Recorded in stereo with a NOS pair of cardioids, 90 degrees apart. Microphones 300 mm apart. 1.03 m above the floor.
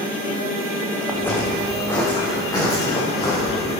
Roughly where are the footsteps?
Ahead.